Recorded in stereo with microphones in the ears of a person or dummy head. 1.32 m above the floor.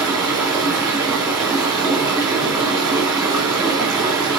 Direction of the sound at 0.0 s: 20° right (ahead or behind).